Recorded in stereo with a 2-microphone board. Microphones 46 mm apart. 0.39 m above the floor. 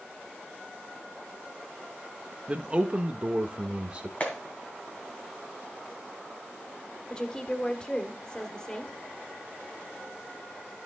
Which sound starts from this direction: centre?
A woman speaking, at 7.1 s.